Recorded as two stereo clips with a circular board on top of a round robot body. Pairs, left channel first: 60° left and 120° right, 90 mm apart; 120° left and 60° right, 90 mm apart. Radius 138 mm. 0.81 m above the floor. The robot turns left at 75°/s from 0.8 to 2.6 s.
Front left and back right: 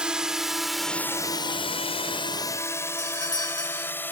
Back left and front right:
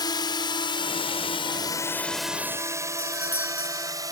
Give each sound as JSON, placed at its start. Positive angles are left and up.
{"t": 0.0, "sound": "a drone", "azimuth_deg": 160}
{"t": 3.0, "sound": "a doorbell", "azimuth_deg": 15}